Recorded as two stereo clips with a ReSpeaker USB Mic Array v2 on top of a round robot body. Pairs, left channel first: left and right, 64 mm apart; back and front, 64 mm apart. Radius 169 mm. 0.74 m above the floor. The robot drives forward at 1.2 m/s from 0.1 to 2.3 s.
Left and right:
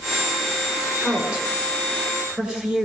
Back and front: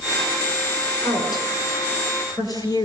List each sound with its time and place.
1.0 s a woman speaking: 165° right, 10 m